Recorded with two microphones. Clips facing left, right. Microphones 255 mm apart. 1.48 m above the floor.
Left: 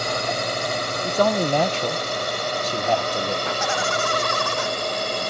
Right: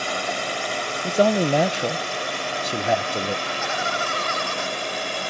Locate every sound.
0.0 s a drone: 45° left (ahead or behind)
1.0 s a man speaking: 15° right (ahead or behind)
3.5 s laughter: 85° left